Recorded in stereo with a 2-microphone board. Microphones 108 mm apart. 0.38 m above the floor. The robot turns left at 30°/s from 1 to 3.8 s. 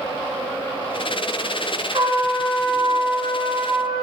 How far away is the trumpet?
About 1.9 m.